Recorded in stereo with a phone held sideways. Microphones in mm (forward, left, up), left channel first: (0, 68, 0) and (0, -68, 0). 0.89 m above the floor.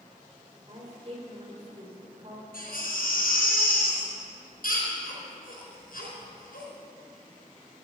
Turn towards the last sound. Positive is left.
turn(degrees=80)